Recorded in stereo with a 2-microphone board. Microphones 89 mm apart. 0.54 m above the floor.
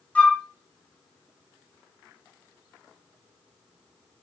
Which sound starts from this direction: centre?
A flute, at 0.1 s.